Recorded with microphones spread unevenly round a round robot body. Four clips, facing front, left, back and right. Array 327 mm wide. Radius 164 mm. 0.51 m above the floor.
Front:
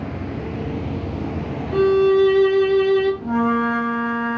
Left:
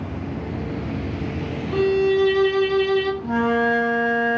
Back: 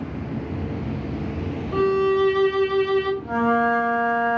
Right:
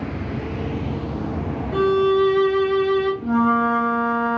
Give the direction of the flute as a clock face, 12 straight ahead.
2 o'clock.